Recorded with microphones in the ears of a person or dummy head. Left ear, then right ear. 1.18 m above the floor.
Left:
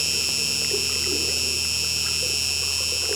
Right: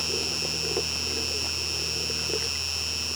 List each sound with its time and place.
0.0 s an insect: 20° left (ahead or behind)